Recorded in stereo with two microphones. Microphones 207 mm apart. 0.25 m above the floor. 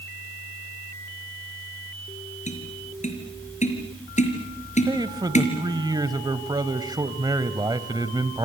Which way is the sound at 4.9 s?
20° right (ahead or behind).